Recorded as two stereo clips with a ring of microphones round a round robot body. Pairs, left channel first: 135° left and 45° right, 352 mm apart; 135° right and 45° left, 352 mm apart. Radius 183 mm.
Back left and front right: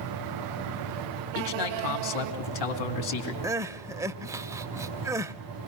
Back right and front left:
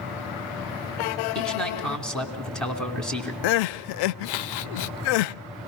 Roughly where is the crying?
Behind right.